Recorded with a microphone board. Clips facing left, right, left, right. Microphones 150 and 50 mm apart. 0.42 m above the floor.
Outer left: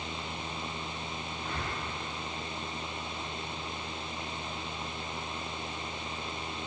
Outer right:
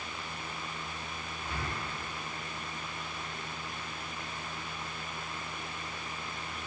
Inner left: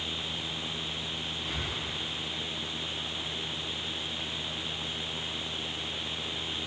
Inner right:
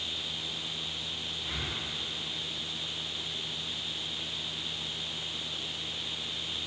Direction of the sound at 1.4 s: 10° right (ahead or behind).